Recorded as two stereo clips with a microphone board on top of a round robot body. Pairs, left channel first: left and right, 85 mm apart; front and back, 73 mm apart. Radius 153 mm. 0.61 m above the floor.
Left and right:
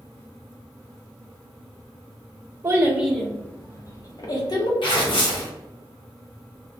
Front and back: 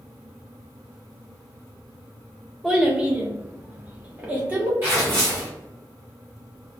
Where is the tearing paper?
115° left, 1.2 m.